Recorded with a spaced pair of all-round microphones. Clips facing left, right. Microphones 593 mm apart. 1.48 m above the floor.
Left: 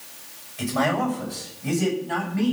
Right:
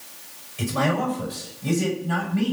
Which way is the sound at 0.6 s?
65° right (ahead or behind).